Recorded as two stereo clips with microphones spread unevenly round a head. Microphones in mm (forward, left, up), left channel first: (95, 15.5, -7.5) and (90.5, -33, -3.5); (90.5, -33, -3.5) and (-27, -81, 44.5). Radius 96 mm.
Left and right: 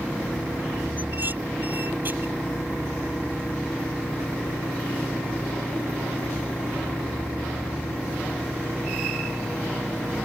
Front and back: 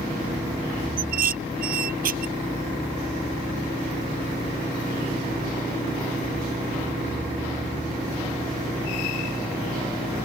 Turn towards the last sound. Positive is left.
turn(degrees=-175)